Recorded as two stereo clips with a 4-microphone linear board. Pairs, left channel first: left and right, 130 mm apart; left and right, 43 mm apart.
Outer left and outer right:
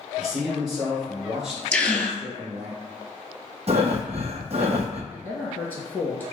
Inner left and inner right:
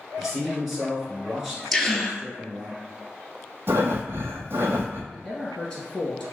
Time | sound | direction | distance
0.2 | a man speaking | 5° right (ahead or behind) | 1.7 m
1.7 | a gasp | 10° left (ahead or behind) | 0.6 m
3.7 | breathing | 55° right (ahead or behind) | 0.7 m
5.1 | a man speaking | 15° left (ahead or behind) | 1.7 m